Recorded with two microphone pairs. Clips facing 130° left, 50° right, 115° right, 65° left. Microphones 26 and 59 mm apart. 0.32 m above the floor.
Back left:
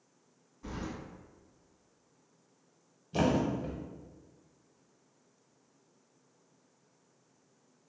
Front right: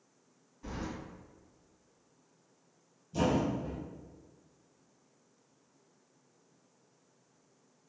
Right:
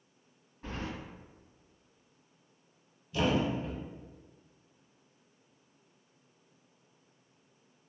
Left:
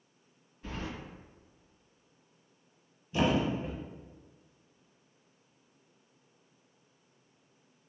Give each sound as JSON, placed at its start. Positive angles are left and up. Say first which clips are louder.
{"t": 0.6, "sound": "keys jangling", "louder": "even, even", "azimuth_deg": -135, "distance_m": 1.6}
{"t": 3.1, "sound": "a thud", "louder": "back left 1 dB, left 1 dB", "azimuth_deg": 125, "distance_m": 0.6}